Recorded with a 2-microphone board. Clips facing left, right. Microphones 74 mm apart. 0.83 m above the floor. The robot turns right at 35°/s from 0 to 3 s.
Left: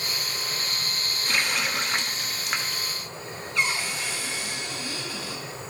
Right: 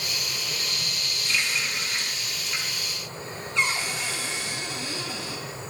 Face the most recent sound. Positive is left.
turn(degrees=-25)  # may be behind; listen again after turning